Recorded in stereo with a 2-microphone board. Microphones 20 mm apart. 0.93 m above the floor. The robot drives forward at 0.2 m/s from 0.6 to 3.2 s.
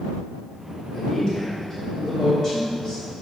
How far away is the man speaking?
About 2.5 m.